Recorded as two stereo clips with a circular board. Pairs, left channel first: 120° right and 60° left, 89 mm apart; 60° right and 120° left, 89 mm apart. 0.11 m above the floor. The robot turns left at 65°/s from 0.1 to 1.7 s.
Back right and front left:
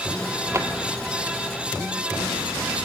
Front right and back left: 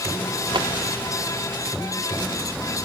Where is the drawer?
115° left, 1.5 m; by 0.7 s 105° left, 1.5 m.